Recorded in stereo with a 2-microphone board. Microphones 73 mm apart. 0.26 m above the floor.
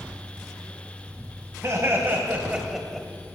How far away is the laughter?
About 1.4 m.